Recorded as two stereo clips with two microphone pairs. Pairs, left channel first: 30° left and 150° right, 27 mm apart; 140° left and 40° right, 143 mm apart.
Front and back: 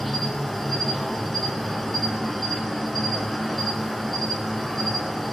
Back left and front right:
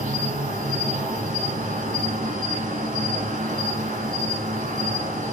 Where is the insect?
50° right, 1.1 m.